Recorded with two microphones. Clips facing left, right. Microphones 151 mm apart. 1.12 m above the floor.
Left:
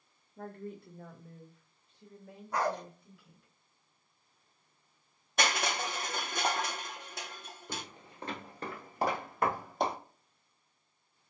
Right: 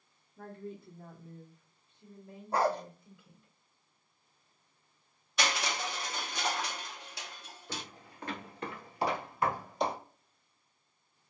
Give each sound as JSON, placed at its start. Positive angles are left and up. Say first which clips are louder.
{"t": 0.4, "sound": "a woman speaking", "louder": "left 1 dB", "side_deg": 50, "distance_m": 0.8}
{"t": 2.5, "sound": "a dog barking", "louder": "right 3 dB", "side_deg": -30, "distance_m": 0.6}
{"t": 5.4, "sound": "crushing", "louder": "left 2 dB", "side_deg": 50, "distance_m": 0.6}
{"t": 7.7, "sound": "footsteps", "louder": "even", "side_deg": 15, "distance_m": 1.4}